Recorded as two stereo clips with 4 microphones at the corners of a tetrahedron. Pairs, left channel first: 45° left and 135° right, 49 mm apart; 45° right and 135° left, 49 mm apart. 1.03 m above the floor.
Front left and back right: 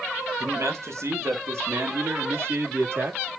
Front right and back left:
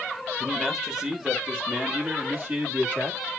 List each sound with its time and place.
0.4 s a man speaking: 150° right, 1.7 m; by 3.2 s 175° left, 2.5 m